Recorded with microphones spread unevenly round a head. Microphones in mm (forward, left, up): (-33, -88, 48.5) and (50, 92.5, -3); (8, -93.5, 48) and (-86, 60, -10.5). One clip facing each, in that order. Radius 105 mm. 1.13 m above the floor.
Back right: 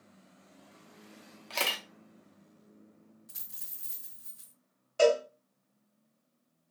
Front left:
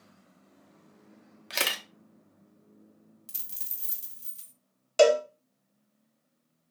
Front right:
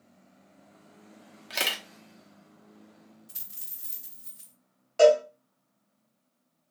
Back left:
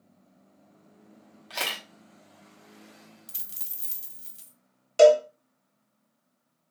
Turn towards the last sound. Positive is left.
turn(degrees=60)